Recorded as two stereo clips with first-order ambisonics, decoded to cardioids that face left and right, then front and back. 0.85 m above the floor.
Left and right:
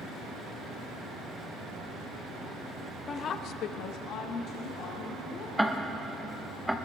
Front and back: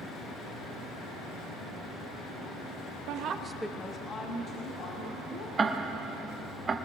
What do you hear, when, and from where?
3.1 s a woman speaking: 160° left, 0.9 m; by 5.5 s 40° left, 3 m
5.6 s ticking: 175° right, 0.6 m